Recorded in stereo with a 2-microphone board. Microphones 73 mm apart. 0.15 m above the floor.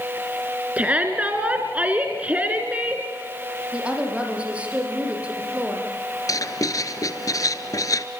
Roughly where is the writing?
Left.